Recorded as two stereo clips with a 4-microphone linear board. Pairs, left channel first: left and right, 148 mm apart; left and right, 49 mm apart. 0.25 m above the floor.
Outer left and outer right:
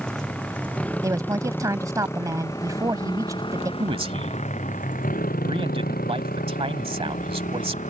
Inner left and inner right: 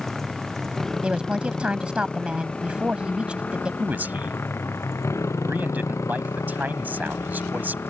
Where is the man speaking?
40° right (ahead or behind).